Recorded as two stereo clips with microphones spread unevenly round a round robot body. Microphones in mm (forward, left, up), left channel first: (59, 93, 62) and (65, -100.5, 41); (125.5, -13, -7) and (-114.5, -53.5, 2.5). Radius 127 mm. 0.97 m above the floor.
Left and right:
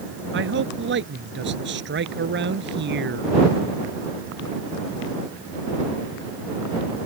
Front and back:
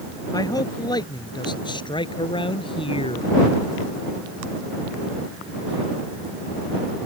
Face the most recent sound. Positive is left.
turn(degrees=-60)